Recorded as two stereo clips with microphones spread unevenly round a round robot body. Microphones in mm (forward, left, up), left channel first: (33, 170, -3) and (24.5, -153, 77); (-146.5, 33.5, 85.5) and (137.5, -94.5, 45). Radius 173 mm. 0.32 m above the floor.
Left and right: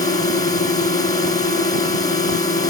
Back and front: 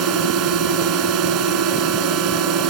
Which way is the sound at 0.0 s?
15° left.